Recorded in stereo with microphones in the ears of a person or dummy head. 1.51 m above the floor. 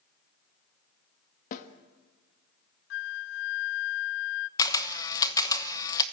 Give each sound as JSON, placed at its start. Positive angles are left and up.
{"t": 1.5, "sound": "a snare drum", "side_deg": 45, "distance_m": 1.5}
{"t": 2.9, "sound": "a flute", "side_deg": 65, "distance_m": 0.5}
{"t": 4.6, "sound": "a camera shutter", "side_deg": 20, "distance_m": 1.1}